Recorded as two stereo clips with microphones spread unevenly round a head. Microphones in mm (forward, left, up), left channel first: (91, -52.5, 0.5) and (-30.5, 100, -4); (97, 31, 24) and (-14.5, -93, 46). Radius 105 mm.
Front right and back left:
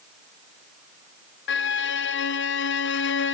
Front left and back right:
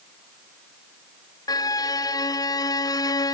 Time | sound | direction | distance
1.5 | a violin | 20° right | 0.8 m